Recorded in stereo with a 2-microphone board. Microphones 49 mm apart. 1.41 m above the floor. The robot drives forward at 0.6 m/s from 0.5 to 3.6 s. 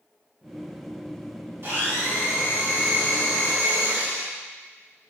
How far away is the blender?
About 3 m.